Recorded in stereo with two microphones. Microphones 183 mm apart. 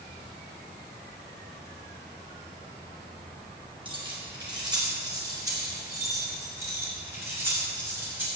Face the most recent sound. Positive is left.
turn(degrees=-10)  # may be behind; listen again after turning